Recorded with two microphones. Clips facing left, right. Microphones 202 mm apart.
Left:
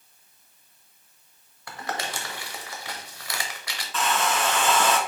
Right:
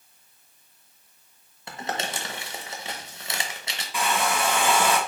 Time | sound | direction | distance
1.7 | crumpling | 25° right (ahead or behind) | 0.8 m
3.9 | a hair dryer | 10° right (ahead or behind) | 0.8 m